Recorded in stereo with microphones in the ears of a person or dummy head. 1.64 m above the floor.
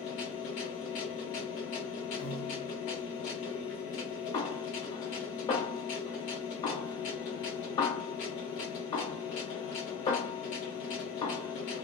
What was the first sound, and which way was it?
A machine running, 35° left (ahead or behind).